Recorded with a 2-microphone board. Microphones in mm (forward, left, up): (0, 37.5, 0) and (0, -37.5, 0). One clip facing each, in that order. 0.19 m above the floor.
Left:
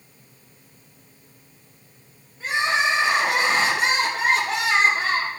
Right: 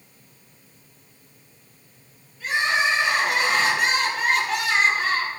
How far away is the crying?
About 4 m.